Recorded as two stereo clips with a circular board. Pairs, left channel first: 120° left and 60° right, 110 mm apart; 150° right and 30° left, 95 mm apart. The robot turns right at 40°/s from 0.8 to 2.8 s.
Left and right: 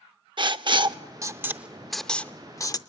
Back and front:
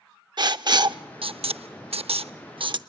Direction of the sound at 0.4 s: 15° right.